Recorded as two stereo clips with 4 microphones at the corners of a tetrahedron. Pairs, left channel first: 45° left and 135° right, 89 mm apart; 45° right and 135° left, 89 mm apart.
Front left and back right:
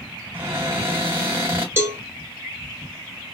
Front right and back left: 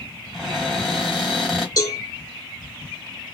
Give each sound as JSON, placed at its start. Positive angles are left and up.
{"t": 0.3, "sound": "a cupboard door", "azimuth_deg": -140, "distance_m": 1.5}
{"t": 1.8, "sound": "a cowbell", "azimuth_deg": -80, "distance_m": 0.8}